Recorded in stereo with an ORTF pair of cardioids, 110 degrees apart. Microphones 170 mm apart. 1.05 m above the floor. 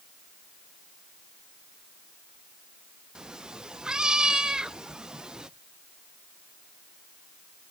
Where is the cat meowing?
5° right, 0.6 m.